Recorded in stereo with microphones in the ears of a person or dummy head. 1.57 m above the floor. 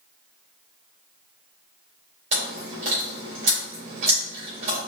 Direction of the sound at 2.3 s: 35° right (ahead or behind).